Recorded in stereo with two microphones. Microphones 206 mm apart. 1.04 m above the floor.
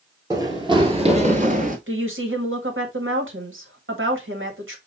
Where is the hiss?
No hiss in this recording.